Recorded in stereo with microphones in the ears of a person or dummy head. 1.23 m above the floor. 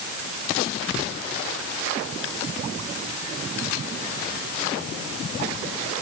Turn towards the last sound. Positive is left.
No sound to turn to.